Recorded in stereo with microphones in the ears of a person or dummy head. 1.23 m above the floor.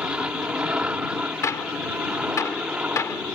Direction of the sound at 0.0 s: 5° right (ahead or behind).